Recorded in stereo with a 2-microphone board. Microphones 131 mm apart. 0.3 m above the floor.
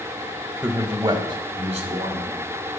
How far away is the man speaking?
About 0.9 m.